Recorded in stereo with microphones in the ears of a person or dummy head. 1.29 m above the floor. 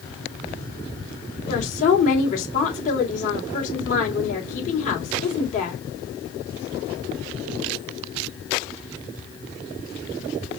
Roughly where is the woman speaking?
Left.